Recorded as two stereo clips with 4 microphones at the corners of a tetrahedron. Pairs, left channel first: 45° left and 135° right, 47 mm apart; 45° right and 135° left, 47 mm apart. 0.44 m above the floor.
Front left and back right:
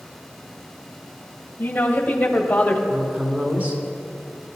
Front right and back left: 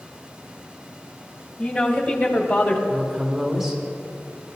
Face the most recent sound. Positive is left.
turn(degrees=-145)